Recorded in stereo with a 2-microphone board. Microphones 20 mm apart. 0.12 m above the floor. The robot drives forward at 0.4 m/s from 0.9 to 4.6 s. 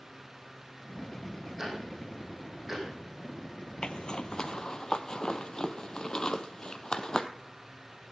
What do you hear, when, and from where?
1.6 s ticking: 25° right (ahead or behind), 5.5 m
3.8 s a zipper: 60° left (ahead or behind), 0.6 m; by 7.3 s 40° left (ahead or behind), 0.8 m